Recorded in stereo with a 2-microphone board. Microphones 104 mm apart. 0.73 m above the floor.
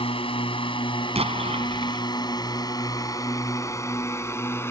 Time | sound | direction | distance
0.0 | a drone | 65° left (ahead or behind) | ?
1.1 | an explosion | 80° right | ?